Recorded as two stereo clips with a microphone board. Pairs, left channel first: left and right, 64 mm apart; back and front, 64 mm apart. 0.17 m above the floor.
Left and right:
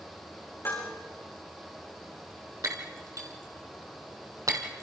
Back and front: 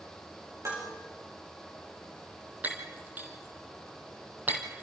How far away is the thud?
No thud in this recording.